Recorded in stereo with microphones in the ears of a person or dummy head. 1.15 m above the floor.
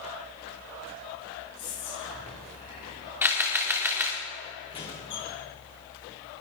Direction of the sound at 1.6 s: 45° left (ahead or behind).